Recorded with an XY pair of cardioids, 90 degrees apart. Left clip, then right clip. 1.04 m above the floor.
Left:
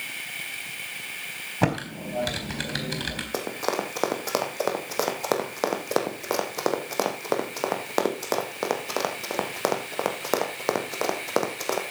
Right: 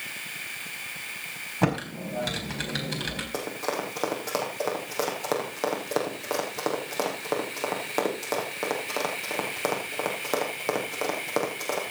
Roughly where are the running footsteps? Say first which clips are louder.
Left 4 dB; ahead left.